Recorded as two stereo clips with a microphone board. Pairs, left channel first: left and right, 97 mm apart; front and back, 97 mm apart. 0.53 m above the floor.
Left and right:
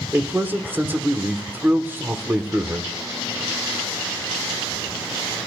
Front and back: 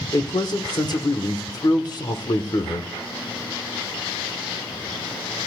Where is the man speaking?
25° right, 1.3 m.